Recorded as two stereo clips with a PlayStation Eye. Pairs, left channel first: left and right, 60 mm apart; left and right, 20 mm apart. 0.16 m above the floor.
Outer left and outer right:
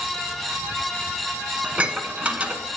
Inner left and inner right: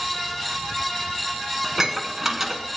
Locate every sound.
1.6 s dishes clattering: 20° right (ahead or behind), 0.9 m